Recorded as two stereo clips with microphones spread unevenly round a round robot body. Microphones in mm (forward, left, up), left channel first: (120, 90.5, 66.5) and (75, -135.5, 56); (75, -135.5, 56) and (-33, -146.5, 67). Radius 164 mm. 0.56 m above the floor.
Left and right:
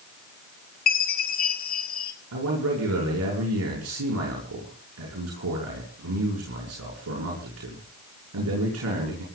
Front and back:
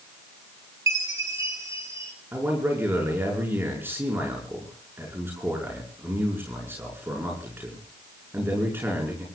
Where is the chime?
125° left, 1.7 m.